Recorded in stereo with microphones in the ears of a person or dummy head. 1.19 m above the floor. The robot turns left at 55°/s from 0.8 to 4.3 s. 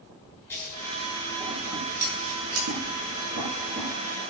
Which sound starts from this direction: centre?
Scissors, at 0.5 s.